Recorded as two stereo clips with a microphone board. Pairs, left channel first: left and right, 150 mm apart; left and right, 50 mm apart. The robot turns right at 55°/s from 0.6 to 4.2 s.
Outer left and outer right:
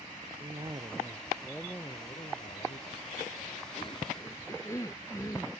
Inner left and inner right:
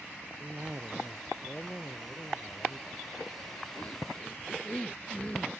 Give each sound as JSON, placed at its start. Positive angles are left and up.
{"t": 0.4, "sound": "a cough", "azimuth_deg": -45}